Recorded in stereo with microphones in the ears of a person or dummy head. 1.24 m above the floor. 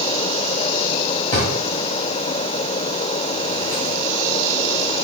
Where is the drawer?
30° left (ahead or behind), 1.3 m.